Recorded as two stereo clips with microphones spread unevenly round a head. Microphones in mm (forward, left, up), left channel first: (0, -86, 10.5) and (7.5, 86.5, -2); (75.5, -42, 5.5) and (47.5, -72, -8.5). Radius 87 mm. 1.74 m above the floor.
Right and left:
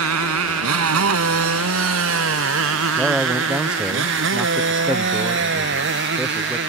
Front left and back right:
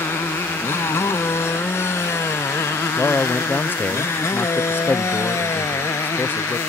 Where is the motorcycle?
95° left; by 6.7 s 60° left.